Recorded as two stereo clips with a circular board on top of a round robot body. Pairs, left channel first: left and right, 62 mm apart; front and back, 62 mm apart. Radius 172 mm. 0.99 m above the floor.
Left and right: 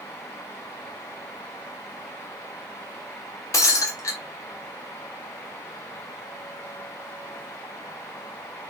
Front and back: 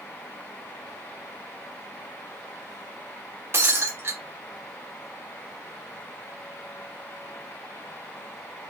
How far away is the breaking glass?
About 0.8 m.